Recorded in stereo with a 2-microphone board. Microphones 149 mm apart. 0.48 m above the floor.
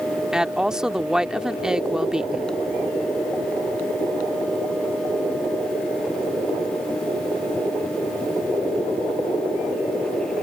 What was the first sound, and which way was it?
A woman speaking, 5° right (ahead or behind).